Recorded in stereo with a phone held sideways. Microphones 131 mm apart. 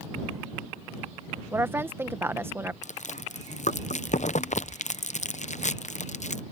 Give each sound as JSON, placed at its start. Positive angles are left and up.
{"t": 1.5, "sound": "a woman speaking", "side_deg": -15}
{"t": 2.8, "sound": "chewing", "side_deg": 60}